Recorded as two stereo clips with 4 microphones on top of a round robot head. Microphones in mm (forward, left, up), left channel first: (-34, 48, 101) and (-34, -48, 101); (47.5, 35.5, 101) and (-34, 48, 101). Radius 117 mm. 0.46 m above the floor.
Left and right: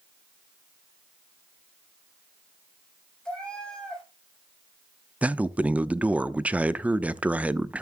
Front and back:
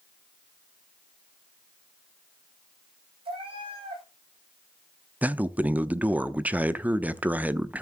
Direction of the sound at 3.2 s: 175° left.